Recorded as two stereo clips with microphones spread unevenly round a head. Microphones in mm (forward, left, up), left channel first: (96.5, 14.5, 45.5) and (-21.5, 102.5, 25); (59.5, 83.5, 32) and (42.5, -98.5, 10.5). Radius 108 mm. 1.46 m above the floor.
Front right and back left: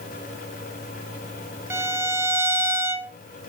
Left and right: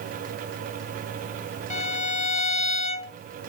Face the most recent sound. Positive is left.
turn(degrees=70)